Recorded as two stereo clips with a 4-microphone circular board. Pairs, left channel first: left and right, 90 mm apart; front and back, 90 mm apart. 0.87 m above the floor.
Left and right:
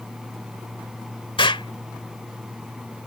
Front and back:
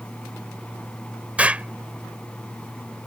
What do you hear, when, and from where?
1.4 s an explosion: 105° left